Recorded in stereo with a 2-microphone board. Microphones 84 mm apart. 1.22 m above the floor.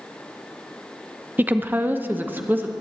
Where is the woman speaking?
20° right (ahead or behind), 0.7 m.